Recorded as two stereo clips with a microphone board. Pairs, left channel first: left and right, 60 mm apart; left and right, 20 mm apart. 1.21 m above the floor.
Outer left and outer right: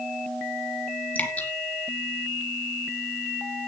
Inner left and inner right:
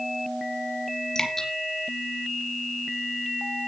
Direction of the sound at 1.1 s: 30° left (ahead or behind).